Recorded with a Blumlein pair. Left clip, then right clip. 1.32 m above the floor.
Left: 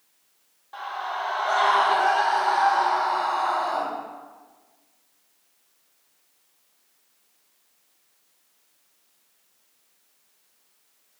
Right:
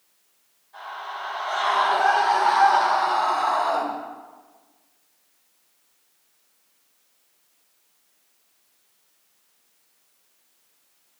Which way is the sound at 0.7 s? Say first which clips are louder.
Left 4 dB; 50° left.